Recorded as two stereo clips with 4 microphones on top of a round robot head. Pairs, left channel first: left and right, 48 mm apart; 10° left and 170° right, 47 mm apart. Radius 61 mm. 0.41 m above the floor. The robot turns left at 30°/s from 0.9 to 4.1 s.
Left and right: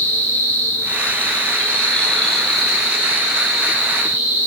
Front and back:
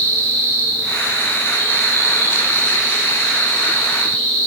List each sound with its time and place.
0.0 s an insect: 50° left, 2.5 m; by 4.5 s 45° right, 2.5 m